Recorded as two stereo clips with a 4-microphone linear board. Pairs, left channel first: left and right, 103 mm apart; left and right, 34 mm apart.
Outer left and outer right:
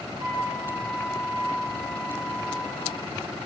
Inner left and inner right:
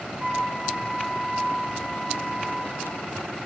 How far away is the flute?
About 7.5 m.